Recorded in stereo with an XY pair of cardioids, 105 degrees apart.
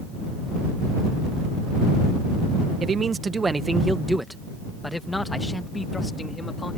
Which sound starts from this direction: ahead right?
A man speaking, at 2.8 s.